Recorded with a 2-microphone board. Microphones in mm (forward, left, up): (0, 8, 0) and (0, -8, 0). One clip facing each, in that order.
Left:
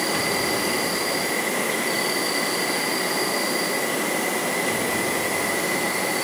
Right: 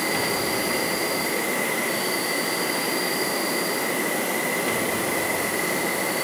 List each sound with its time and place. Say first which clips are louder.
0.0 s an insect: left 1 dB; 35° left (ahead or behind), 4.5 m